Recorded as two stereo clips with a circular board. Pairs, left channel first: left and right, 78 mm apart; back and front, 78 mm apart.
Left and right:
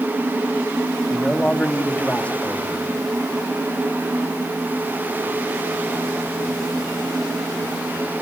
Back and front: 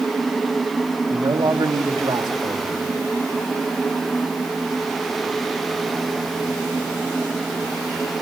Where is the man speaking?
20° left, 2 m.